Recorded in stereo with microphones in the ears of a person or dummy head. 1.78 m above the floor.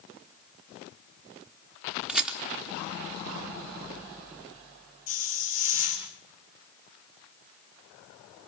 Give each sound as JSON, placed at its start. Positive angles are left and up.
{"t": 2.1, "sound": "a rattle", "side_deg": -5, "distance_m": 0.9}
{"t": 5.1, "sound": "a hiss", "side_deg": 45, "distance_m": 3.0}